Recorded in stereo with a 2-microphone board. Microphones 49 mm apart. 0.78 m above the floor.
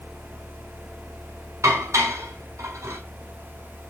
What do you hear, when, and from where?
1.6 s dishes clattering: 85° right, 3.5 m